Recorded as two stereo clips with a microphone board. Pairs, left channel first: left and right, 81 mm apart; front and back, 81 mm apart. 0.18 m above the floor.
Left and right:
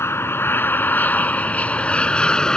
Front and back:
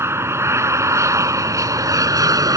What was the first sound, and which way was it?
An aircraft, 135° left.